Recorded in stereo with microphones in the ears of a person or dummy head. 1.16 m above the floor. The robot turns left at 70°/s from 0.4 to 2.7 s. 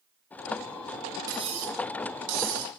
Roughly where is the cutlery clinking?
Ahead.